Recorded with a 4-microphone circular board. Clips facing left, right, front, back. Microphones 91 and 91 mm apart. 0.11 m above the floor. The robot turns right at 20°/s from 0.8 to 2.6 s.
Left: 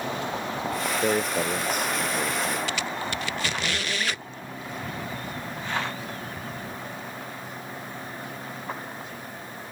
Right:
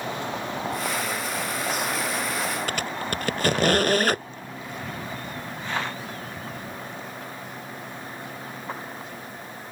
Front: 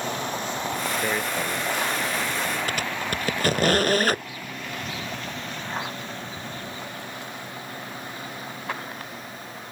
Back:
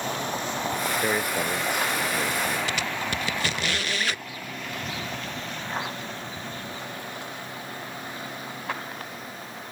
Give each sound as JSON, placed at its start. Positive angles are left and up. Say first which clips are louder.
{"t": 1.0, "sound": "a man speaking", "louder": "left 5 dB, back 1 dB", "azimuth_deg": 100}
{"t": 2.7, "sound": "a squeak", "louder": "right 1 dB, front 1 dB", "azimuth_deg": -45}